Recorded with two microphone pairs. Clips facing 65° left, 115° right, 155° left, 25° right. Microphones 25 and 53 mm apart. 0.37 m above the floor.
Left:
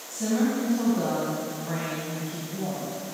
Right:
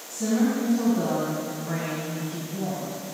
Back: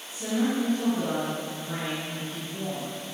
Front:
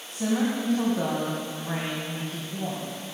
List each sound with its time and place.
0.1 s a woman speaking: 5° right, 3 m